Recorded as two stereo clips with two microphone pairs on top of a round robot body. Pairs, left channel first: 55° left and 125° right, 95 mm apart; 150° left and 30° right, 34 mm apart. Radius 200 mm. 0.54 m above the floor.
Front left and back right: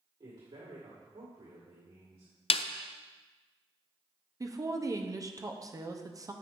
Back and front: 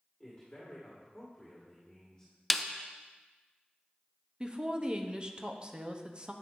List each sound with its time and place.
0.2 s a man speaking: 145° right, 2.5 m
2.5 s a snare drum: 60° left, 0.5 m
4.4 s a woman speaking: 95° right, 1.2 m